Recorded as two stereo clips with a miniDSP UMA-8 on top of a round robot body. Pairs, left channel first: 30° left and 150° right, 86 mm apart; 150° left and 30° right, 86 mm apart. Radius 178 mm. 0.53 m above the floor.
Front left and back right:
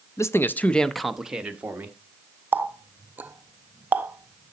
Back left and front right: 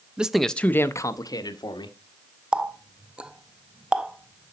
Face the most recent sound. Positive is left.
turn(degrees=-100)